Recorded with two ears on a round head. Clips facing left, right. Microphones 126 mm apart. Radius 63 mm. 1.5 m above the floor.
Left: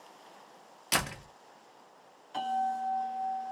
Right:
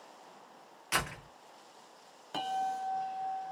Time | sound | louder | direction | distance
0.9 | a door slam | left 2 dB | 40° left (ahead or behind) | 0.8 m
2.3 | a bell | left 3 dB | 60° right (ahead or behind) | 0.8 m